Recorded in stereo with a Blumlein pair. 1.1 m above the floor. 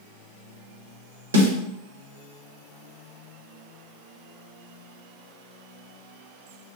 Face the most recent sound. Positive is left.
turn(degrees=-70)